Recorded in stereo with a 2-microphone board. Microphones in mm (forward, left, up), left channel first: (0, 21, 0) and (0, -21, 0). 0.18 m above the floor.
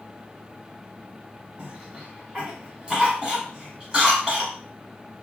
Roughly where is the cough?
Right.